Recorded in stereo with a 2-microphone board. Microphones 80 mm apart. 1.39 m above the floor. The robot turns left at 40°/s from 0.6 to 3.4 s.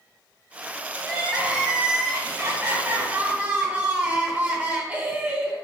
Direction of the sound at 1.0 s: 5° right (ahead or behind).